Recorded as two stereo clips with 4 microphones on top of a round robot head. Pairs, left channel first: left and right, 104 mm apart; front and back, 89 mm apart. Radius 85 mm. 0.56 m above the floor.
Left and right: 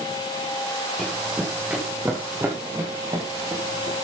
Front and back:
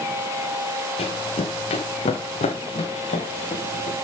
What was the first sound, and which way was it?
Running footsteps, straight ahead.